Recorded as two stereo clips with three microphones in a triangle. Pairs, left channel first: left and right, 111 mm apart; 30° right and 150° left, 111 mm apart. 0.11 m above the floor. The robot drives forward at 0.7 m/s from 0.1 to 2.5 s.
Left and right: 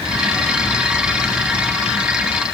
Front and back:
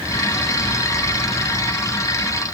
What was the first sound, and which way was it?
Only background noise.